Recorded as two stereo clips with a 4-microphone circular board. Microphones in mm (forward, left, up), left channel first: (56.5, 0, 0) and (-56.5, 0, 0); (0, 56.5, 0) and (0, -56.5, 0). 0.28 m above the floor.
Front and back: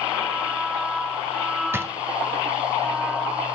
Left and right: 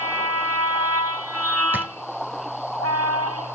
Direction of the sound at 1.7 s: 140° right.